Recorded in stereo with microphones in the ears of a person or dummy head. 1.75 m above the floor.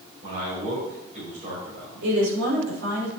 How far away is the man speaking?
About 6 m.